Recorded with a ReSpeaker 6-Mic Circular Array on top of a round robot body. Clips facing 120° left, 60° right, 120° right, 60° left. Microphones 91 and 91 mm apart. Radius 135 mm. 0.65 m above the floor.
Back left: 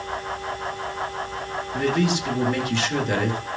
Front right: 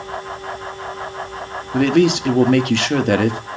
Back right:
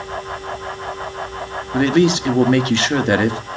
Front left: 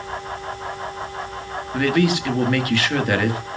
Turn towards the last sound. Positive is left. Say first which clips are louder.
# front right 8 dB, back right 4 dB
turn(degrees=-60)